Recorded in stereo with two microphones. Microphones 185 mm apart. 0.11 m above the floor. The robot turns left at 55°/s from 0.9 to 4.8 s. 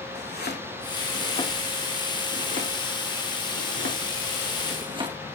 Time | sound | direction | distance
0.1 | chopping | 60° left (ahead or behind) | 3.5 m